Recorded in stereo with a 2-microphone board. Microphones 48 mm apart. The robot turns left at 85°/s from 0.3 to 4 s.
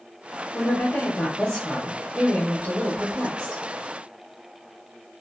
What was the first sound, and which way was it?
A woman speaking, 105° left.